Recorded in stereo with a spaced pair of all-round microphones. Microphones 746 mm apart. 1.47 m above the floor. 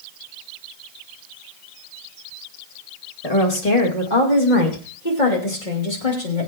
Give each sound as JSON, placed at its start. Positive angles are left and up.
{"t": 3.2, "sound": "a woman speaking", "side_deg": 55, "distance_m": 2.5}